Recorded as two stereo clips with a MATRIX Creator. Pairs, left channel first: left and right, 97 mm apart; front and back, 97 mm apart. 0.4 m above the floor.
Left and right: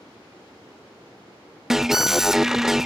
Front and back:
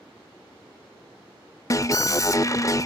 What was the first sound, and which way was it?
An alarm, 5° right.